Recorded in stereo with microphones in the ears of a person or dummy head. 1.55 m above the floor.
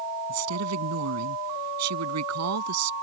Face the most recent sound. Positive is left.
turn(degrees=-90)